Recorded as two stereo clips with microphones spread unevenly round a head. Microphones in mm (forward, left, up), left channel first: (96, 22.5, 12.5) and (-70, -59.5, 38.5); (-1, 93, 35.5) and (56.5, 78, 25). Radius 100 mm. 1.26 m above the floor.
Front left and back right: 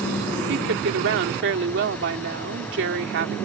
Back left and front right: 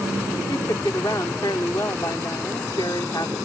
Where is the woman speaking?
130° right.